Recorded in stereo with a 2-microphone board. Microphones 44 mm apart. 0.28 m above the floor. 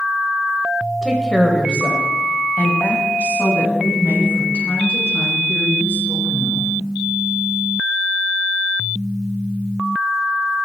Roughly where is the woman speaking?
Centre.